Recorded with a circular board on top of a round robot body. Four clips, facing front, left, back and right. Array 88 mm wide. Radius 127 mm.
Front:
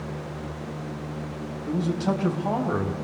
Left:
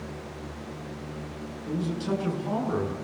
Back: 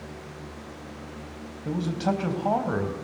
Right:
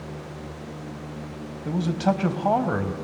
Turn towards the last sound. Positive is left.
turn(degrees=-110)